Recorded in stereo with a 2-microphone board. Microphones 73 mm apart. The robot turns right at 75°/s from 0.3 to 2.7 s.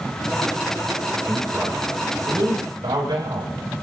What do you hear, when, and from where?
1.3 s a man speaking: 165° left, 8 m; by 3.6 s 90° right, 8 m